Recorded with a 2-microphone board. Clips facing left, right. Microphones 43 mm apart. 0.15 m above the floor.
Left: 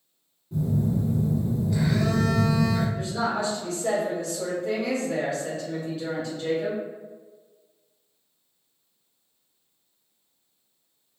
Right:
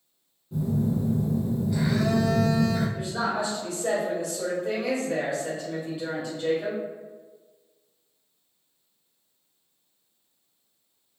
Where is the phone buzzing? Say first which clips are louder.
Even; centre (ahead or behind), 1.0 m.